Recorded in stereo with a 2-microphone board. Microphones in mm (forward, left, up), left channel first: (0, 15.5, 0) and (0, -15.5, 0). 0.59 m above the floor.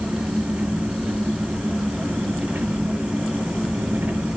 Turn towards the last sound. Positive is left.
turn(degrees=-80)